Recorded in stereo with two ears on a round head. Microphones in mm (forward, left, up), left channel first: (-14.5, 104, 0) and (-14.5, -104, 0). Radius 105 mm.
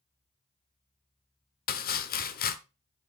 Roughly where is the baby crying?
No baby crying in this recording.